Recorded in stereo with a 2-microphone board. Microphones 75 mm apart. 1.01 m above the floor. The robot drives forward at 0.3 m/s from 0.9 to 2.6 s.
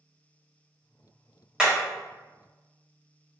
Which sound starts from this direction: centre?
Hammering, at 1.6 s.